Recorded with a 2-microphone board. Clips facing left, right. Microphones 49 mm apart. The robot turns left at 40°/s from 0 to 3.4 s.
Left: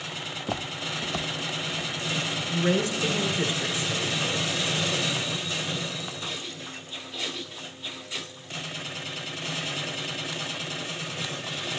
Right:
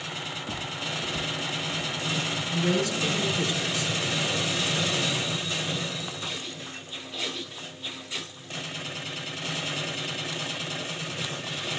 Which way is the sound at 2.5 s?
25° left (ahead or behind).